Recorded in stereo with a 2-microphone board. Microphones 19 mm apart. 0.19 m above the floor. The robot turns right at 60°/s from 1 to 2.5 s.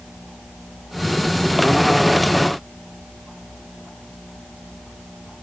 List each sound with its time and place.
Only background noise.